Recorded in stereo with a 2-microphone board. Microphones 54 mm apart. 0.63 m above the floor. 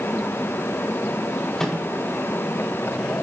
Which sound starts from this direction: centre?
A microwave, at 1.6 s.